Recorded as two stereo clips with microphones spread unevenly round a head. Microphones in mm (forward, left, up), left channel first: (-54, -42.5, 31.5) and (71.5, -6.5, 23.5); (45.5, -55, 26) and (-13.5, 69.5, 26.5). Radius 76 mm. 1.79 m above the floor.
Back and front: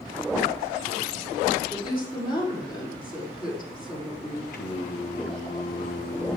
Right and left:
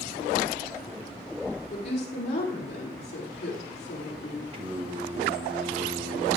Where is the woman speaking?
110° right, 6 m.